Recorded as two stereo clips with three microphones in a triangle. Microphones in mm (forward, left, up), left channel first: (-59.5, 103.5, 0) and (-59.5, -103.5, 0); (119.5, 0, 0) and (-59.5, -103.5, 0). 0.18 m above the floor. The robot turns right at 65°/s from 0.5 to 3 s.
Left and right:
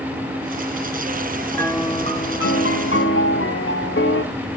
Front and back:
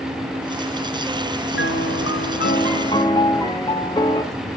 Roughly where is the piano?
Ahead.